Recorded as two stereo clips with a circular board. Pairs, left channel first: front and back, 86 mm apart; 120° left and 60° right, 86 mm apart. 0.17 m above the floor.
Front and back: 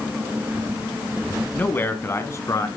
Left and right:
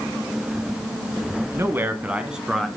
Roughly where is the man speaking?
Ahead right.